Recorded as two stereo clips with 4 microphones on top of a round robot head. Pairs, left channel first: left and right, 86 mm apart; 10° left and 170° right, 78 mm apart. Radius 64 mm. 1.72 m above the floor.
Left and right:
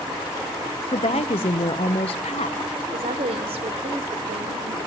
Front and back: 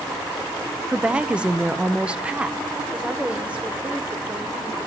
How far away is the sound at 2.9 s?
About 1.2 m.